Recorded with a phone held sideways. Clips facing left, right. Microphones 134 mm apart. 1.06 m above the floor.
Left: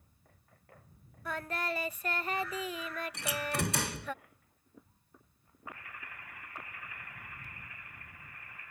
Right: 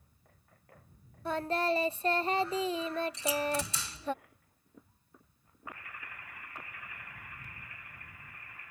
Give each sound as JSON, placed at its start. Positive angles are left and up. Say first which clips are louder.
{"t": 1.2, "sound": "singing", "louder": "right 6 dB", "side_deg": -30}
{"t": 3.1, "sound": "a door slam", "louder": "right 4 dB", "side_deg": 65}